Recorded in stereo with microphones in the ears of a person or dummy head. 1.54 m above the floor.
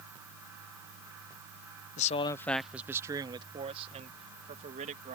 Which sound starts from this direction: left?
A man speaking, at 2.0 s.